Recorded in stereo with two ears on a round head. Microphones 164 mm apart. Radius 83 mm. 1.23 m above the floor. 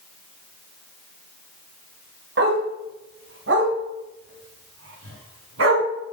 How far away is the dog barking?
About 3 m.